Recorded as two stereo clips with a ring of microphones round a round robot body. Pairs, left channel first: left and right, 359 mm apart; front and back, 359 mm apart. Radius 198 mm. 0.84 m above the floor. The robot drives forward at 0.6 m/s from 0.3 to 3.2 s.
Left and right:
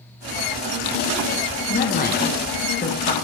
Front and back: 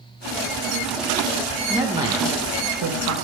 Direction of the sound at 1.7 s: 95° left.